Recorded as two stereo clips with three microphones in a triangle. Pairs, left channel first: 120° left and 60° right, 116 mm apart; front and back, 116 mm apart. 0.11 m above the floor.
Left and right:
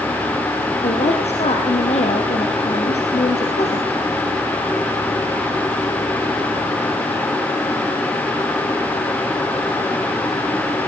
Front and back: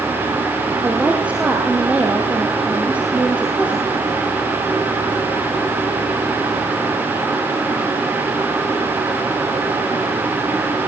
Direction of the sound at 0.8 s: 100° left.